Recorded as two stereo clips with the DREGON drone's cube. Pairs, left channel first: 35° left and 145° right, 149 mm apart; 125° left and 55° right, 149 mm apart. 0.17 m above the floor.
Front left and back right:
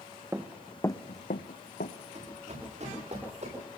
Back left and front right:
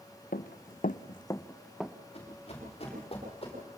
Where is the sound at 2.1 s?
175° left, 9 m.